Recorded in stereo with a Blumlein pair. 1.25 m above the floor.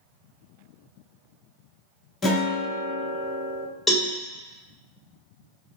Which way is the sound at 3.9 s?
5° left.